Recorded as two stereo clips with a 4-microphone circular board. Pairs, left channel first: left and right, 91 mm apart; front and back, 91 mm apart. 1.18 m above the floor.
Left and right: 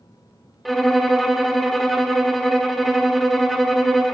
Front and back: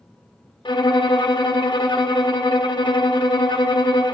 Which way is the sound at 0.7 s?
Straight ahead.